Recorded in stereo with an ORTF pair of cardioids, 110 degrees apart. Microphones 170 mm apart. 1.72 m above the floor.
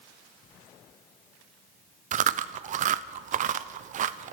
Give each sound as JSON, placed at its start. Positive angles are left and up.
{"t": 2.1, "sound": "chewing", "azimuth_deg": -50, "distance_m": 0.8}